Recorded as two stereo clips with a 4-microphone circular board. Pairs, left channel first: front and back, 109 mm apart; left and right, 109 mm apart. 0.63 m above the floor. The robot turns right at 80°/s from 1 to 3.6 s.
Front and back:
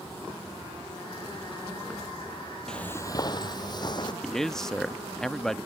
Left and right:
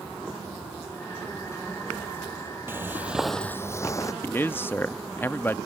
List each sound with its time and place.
2.7 s footsteps: 75° right; by 4.1 s 35° left
4.2 s a man speaking: 75° left